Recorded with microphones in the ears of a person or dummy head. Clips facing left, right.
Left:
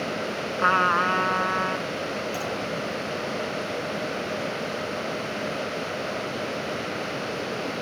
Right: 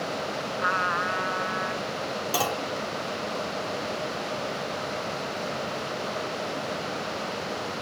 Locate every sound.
0.6 s a trumpet: 55° left (ahead or behind)
2.3 s a clunk: 85° right